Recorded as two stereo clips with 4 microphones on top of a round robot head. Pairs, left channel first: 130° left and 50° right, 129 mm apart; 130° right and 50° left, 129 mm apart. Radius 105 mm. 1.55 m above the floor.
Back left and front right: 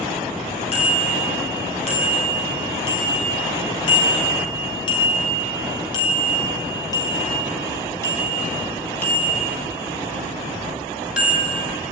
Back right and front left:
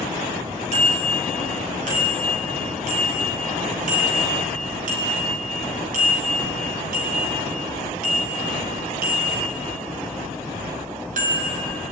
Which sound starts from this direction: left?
A bicycle bell, at 0.7 s.